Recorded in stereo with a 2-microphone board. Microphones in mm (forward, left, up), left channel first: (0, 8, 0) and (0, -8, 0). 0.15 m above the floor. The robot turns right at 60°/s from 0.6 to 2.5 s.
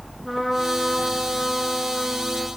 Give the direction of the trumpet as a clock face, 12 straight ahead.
12 o'clock.